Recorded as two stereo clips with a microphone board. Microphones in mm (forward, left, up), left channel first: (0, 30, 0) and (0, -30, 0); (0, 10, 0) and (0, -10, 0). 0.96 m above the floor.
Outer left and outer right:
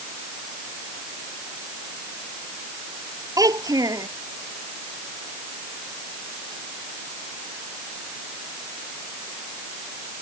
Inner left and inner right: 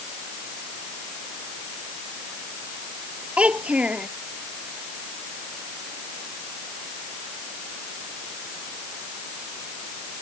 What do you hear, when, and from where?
3.4 s a child speaking: 80° right